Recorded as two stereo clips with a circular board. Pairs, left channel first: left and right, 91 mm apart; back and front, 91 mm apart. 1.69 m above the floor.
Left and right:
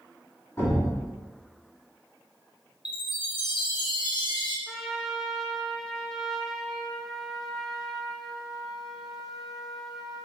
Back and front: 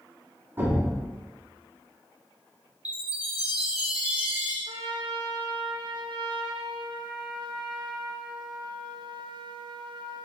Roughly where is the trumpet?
Ahead.